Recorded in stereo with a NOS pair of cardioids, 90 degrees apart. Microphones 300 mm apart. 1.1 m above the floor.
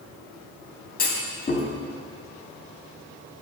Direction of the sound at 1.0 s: 30° left.